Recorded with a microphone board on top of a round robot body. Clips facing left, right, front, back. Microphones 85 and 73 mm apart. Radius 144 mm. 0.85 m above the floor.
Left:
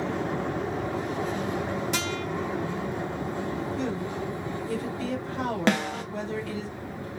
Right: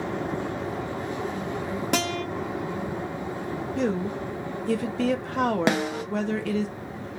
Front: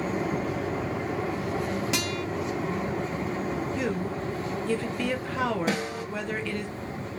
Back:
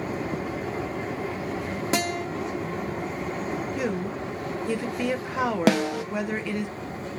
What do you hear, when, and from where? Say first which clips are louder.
1.9 s a guitar: right 4 dB, back 3 dB; 125° right, 1.4 m
3.8 s a woman speaking: right 4 dB, back 1 dB; 105° right, 1.1 m
5.7 s a snare drum: right 1 dB, back 7 dB; 170° right, 0.8 m